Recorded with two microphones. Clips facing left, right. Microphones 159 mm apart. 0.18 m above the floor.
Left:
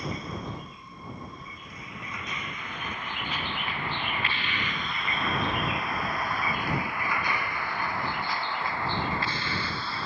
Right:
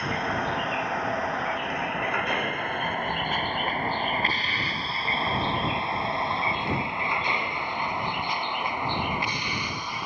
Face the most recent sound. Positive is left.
turn(degrees=-15)  # may be behind; listen again after turning